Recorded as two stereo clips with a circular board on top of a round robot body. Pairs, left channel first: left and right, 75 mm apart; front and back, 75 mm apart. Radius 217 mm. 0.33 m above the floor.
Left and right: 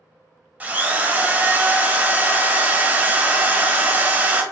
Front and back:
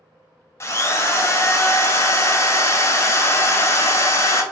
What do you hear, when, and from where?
0.6 s a drill: 30° right, 0.8 m